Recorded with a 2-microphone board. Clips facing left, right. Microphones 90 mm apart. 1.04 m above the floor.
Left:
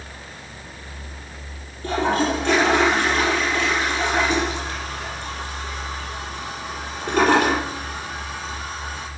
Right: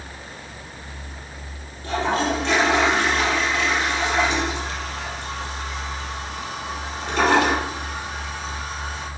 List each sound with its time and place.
1.8 s a toilet flushing: 50° left (ahead or behind), 4 m